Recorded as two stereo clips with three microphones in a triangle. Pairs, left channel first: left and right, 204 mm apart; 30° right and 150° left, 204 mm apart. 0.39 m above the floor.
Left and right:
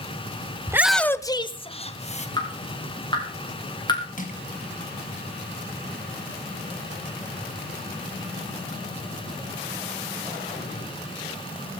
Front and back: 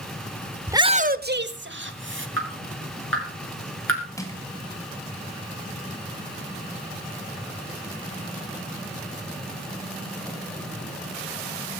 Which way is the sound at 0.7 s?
140° right.